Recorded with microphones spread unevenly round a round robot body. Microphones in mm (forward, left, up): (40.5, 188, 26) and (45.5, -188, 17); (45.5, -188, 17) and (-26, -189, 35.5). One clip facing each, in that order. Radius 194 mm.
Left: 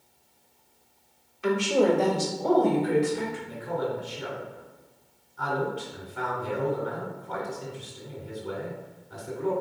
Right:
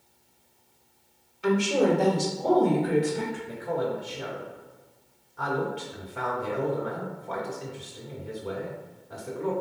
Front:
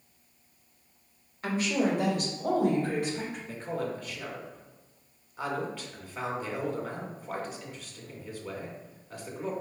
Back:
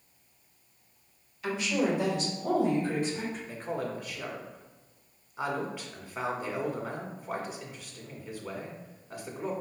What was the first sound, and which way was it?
A woman speaking, straight ahead.